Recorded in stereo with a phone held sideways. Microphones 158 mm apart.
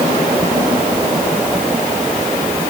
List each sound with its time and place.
Only background noise.